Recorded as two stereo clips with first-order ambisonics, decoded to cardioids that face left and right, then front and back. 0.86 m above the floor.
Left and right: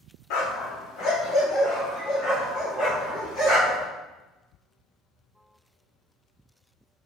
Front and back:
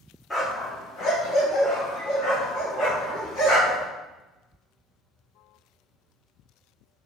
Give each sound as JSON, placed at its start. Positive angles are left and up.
{"t": 0.3, "sound": "a dog barking", "azimuth_deg": 80, "distance_m": 0.7}